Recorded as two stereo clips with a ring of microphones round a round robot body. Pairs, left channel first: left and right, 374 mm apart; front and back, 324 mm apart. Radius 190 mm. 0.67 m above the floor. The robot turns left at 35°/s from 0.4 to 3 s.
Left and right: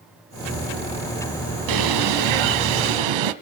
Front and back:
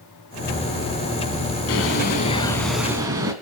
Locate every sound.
1.7 s a bird: 55° right, 1.0 m; by 3.3 s 100° right, 1.0 m